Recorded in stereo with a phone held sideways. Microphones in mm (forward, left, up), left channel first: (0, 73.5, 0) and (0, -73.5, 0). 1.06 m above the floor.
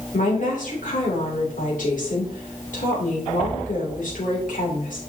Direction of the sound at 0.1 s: 65° left (ahead or behind).